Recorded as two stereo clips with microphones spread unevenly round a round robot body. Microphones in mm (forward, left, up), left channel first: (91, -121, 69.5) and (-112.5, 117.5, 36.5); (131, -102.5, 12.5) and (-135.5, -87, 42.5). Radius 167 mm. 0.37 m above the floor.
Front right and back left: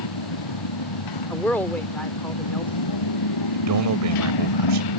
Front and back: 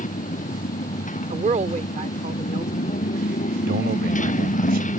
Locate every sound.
0.0 s a motorcycle: 65° right
1.3 s a woman speaking: 140° right
3.5 s a man speaking: 115° left